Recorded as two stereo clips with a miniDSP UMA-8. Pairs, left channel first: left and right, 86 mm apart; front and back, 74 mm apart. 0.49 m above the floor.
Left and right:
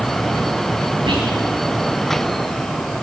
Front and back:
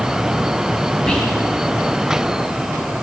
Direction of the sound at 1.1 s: 80° right.